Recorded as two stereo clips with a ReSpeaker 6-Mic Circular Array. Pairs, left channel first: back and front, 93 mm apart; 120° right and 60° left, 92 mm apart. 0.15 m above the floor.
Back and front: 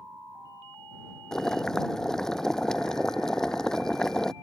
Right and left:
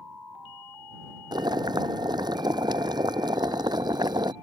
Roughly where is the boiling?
Left.